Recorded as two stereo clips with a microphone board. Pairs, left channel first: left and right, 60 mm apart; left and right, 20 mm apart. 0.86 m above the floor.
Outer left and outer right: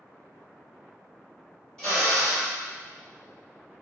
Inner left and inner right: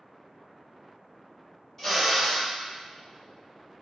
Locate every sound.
1.8 s a drill: 15° left (ahead or behind), 1.8 m